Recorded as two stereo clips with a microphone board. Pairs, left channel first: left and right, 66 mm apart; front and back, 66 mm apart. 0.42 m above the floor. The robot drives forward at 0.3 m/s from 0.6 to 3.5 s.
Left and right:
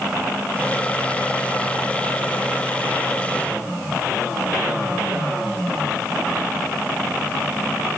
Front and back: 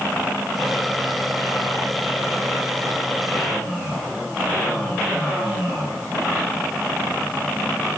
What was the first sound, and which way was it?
Only background noise.